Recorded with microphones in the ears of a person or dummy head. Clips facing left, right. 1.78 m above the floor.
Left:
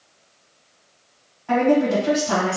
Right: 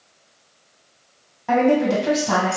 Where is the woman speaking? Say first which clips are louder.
Even; 75° right (ahead or behind), 1.7 m.